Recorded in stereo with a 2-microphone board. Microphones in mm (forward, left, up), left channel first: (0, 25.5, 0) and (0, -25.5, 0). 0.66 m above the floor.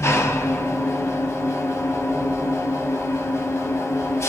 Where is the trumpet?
No trumpet in this recording.